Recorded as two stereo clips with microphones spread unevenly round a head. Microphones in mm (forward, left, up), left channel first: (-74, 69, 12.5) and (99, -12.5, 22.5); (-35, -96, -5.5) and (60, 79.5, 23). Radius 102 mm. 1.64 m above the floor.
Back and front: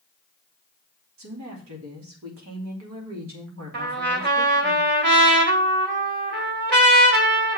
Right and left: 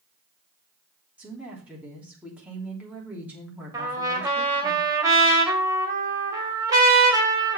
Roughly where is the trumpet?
Ahead.